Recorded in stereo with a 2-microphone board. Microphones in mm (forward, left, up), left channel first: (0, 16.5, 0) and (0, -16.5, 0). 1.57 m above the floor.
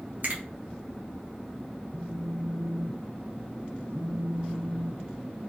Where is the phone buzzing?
65° right (ahead or behind), 1.9 m.